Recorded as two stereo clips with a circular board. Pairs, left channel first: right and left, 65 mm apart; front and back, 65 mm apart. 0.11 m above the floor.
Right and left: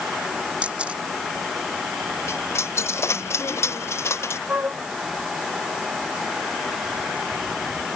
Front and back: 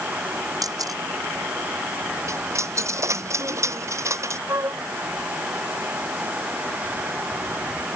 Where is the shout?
I don't hear a shout.